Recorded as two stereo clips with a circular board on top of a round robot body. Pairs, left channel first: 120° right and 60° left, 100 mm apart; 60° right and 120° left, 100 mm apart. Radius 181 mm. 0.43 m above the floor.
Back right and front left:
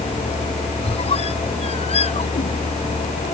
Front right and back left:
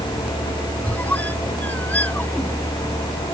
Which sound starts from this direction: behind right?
A squeak, at 0.8 s.